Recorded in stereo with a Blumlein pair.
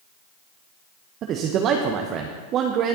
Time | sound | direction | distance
1.2 | a man speaking | 30° right | 0.9 m